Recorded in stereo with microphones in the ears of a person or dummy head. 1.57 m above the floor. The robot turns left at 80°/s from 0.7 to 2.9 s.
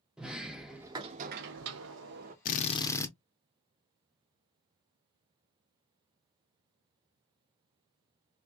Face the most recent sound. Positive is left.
turn(degrees=15)